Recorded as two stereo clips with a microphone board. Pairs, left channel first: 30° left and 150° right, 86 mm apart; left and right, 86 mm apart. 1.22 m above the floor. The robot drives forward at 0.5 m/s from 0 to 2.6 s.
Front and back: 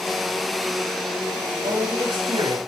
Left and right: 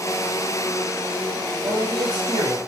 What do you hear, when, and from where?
1.6 s a man speaking: 130° right, 8.5 m